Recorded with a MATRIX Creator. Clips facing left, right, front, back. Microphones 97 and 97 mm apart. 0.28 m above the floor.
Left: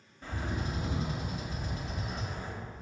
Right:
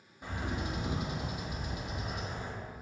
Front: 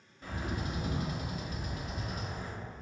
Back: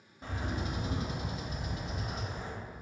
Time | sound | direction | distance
0.2 | a bird | 150° right | 0.5 m